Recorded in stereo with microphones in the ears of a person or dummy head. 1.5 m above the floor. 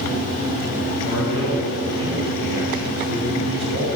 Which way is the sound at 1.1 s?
75° right (ahead or behind).